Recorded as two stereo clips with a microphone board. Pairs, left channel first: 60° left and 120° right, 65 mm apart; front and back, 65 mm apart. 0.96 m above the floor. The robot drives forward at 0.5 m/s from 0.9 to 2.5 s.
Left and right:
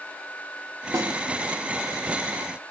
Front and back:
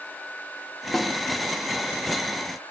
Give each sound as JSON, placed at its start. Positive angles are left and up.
{"t": 0.9, "sound": "a snare drum", "azimuth_deg": -85, "distance_m": 2.5}